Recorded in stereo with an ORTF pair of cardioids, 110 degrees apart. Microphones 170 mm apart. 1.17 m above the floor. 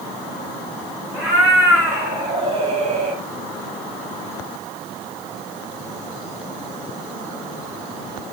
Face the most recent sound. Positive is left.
turn(degrees=-70)